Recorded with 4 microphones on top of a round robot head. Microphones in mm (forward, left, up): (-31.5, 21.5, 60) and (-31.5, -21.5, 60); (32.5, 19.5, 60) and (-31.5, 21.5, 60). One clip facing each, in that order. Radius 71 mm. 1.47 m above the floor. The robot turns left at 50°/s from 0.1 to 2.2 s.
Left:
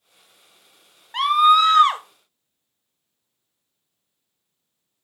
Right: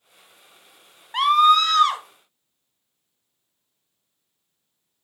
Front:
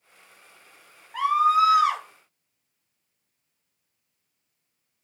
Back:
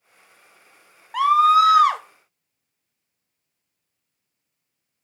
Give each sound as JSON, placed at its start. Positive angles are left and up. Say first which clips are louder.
{"t": 1.1, "sound": "a scream", "louder": "left 1 dB, back 5 dB", "azimuth_deg": -175, "distance_m": 0.5}